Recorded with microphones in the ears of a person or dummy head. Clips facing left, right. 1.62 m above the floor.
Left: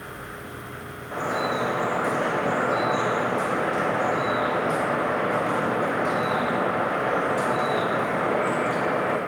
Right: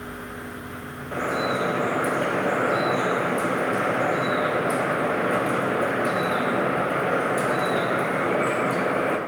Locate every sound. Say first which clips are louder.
1.1 s dripping: right 1 dB; 30° right (ahead or behind), 1.2 m